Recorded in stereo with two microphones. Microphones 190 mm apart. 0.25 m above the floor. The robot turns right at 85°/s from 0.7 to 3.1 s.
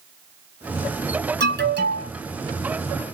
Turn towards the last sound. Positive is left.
turn(degrees=35)